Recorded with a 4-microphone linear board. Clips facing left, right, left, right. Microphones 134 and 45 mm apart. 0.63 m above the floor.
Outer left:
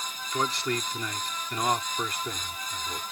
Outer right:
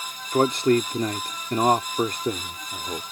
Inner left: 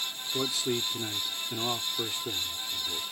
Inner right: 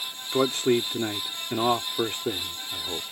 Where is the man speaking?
45° right (ahead or behind).